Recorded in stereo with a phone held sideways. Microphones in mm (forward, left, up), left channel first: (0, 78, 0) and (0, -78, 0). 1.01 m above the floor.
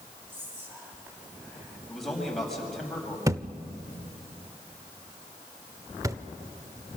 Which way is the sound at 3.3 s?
20° right (ahead or behind).